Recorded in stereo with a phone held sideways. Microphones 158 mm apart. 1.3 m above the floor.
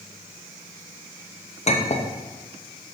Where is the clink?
45° left (ahead or behind), 0.6 m.